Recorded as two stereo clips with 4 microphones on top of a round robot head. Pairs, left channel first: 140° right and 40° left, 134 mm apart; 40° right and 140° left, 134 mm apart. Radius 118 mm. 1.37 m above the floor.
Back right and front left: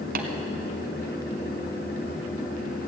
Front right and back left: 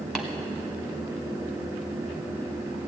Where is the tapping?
50° left, 1.1 m.